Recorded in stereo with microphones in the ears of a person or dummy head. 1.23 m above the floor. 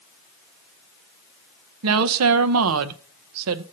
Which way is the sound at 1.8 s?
85° right.